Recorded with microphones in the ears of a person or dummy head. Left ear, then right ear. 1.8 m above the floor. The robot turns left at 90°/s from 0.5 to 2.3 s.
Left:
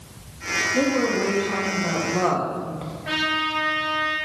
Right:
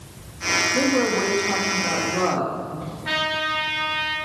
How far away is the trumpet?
About 2 m.